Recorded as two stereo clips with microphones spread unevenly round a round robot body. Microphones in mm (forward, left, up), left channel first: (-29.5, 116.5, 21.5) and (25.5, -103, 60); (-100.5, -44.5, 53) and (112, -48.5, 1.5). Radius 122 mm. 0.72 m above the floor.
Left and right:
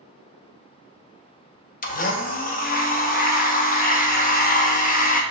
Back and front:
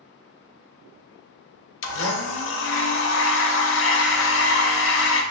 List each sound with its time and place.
1.8 s a blender: 145° left, 0.6 m